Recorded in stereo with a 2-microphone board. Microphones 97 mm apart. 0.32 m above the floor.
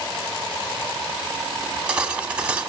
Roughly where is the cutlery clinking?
Centre.